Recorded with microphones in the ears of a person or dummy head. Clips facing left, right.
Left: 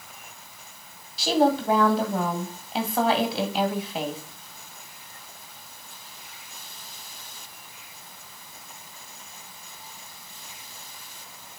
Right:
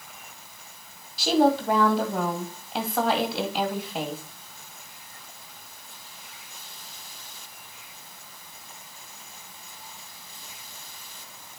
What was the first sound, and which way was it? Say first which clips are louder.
A woman speaking: right 1 dB; centre (ahead or behind).